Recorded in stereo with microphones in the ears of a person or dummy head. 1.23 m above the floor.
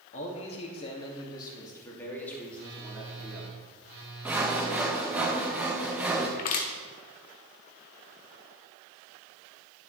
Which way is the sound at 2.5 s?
60° right (ahead or behind).